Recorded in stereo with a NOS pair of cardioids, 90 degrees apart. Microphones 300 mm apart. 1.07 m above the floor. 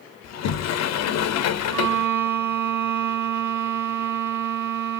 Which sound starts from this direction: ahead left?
A sliding door, at 0.2 s.